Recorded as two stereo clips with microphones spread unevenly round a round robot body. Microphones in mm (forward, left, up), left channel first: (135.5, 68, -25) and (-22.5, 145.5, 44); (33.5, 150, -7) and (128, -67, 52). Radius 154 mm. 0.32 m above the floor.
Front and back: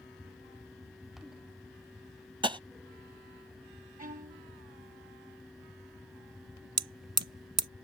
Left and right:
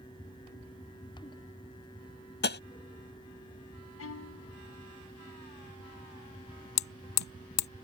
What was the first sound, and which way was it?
Tapping, 80° left.